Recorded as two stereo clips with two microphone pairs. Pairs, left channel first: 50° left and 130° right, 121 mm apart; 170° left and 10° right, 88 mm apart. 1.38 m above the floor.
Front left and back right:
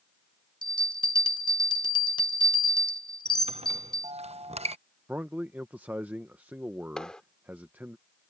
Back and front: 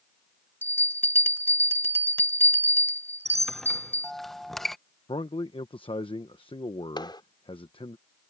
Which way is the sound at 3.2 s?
110° right.